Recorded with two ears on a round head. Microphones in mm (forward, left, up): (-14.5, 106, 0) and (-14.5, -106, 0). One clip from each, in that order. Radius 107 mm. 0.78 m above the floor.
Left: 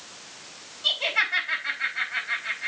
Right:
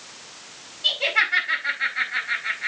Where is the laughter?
10° right (ahead or behind), 3.5 m.